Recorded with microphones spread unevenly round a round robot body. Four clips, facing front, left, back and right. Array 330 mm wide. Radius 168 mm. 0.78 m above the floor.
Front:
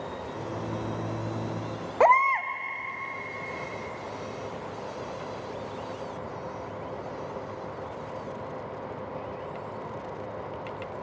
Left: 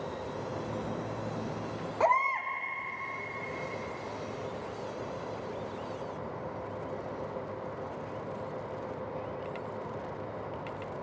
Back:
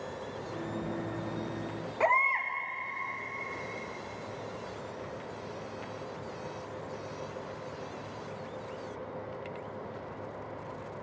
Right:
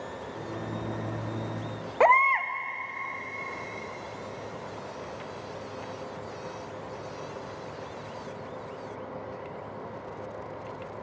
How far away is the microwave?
About 2.0 m.